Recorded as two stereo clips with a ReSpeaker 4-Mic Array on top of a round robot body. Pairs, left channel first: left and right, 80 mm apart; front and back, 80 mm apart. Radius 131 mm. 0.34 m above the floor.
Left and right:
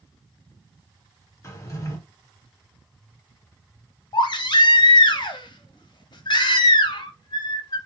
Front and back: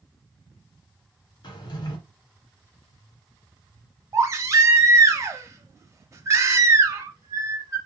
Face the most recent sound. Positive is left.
turn(degrees=125)